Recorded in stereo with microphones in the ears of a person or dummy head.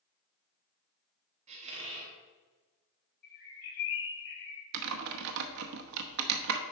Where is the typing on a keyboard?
60° right (ahead or behind), 1.0 m.